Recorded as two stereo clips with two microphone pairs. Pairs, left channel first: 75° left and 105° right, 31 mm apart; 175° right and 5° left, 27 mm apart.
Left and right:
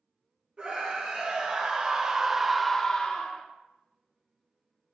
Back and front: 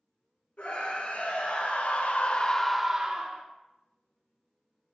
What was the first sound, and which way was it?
A scream, 165° right.